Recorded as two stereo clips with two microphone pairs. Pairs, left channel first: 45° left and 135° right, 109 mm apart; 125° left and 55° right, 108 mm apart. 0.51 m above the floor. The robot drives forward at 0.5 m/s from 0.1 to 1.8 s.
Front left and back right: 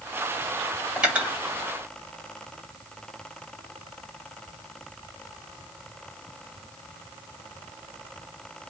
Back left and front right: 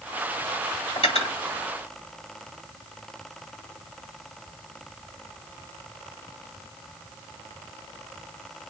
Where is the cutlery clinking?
145° left, 1.1 m; by 1.4 s 150° left, 1.3 m.